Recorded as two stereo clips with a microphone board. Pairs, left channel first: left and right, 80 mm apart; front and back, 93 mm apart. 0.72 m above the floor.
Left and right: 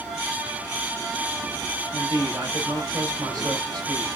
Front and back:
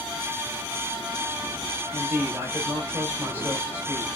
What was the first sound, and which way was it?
A man speaking, 115° right.